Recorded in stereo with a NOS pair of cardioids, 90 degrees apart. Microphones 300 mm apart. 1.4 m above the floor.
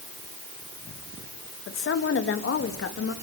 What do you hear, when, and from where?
1.7 s a woman speaking: 45° left, 2 m